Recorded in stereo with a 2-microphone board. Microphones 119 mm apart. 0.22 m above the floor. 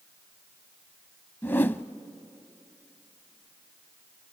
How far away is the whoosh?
About 0.6 m.